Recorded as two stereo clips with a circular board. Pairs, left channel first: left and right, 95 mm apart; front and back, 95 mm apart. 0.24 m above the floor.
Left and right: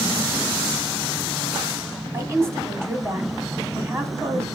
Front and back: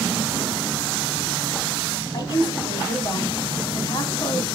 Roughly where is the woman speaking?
Ahead right.